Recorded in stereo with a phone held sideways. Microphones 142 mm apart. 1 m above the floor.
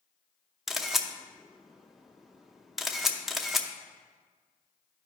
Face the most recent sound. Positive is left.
turn(degrees=0)  # may be behind; listen again after turning